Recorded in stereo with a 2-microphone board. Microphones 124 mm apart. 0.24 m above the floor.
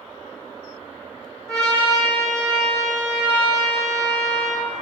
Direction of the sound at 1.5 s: 5° left (ahead or behind).